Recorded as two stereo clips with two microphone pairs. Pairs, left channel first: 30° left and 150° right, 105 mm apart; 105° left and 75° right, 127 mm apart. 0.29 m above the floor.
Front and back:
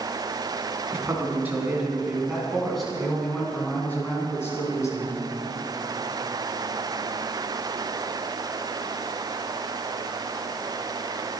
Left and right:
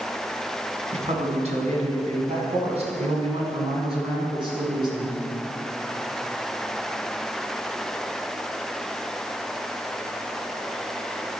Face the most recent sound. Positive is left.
turn(degrees=-25)